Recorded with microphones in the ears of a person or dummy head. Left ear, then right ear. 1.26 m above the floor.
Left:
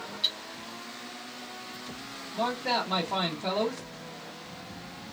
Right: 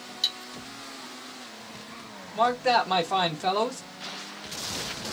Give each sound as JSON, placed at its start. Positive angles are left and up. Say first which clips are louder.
{"t": 0.2, "sound": "cutlery clinking", "louder": "right 1 dB", "side_deg": -45, "distance_m": 0.9}
{"t": 2.3, "sound": "a man speaking", "louder": "right 6 dB", "side_deg": -40, "distance_m": 0.9}